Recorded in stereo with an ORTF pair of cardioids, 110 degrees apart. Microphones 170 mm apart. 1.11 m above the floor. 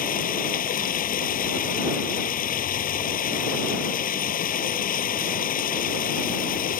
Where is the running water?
55° left.